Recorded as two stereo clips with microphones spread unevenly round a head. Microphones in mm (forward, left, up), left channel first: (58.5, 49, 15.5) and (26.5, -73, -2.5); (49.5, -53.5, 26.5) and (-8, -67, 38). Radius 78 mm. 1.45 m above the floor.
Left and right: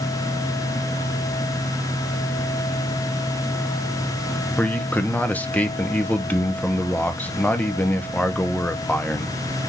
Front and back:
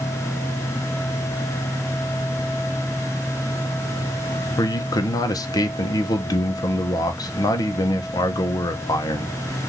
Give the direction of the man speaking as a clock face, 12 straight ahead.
12 o'clock.